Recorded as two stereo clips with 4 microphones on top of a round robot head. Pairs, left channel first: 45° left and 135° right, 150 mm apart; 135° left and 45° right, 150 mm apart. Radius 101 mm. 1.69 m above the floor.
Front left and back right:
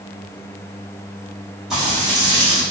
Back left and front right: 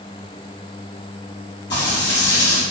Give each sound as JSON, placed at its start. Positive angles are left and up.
{"t": 1.7, "sound": "frying", "azimuth_deg": 140, "distance_m": 1.4}